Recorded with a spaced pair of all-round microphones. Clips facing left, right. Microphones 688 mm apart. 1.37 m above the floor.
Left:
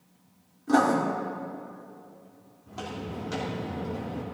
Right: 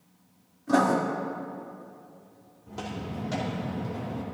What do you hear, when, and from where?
0.7 s writing: 10° right (ahead or behind), 1.7 m
2.7 s footsteps: 10° left (ahead or behind), 3.5 m; by 4.2 s 35° right (ahead or behind), 3.5 m